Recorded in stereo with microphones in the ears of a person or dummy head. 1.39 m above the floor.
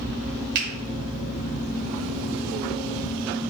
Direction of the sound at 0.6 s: 55° right (ahead or behind).